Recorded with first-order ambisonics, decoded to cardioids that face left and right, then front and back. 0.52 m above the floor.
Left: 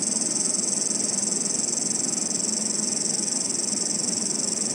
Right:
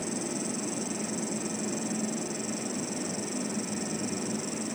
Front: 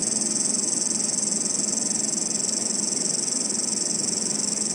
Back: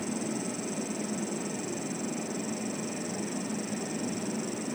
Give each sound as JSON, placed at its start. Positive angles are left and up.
{"t": 0.0, "sound": "an insect", "azimuth_deg": 40}